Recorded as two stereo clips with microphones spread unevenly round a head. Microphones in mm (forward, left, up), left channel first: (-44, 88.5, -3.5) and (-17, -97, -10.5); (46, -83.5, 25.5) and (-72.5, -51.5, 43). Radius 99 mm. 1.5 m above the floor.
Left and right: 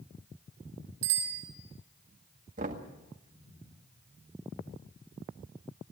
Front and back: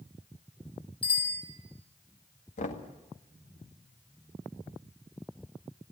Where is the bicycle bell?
55° right, 7.5 m.